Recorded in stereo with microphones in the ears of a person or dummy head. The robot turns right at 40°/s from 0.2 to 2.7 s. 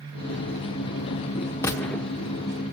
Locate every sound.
1.6 s a gunshot: 10° left (ahead or behind), 1.0 m; by 2.1 s centre (ahead or behind), 1.0 m